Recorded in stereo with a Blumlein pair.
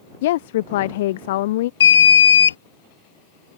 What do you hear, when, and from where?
0.2 s a woman speaking: 55° left
1.8 s an alarm: 65° left